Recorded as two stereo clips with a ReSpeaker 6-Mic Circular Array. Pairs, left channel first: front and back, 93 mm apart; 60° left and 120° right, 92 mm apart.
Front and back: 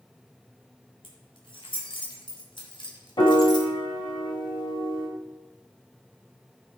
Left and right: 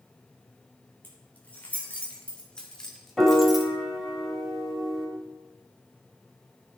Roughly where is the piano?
Ahead right.